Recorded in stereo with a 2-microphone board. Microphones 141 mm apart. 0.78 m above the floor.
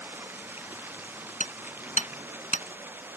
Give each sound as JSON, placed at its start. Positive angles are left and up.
{"t": 0.0, "sound": "running water", "side_deg": -15}
{"t": 1.4, "sound": "hammering", "side_deg": 65}